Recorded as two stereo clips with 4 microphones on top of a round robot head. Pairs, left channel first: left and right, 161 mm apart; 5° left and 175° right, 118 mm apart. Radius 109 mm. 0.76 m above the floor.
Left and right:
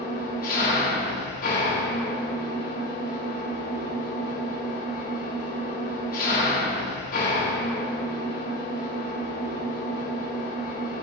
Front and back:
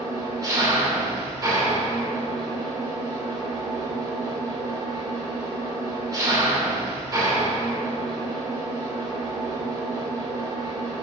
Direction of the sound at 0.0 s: 125° left.